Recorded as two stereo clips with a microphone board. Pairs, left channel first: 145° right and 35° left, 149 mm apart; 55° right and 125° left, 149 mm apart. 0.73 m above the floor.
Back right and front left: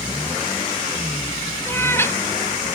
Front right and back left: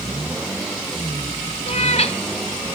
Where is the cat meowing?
75° right, 0.9 m.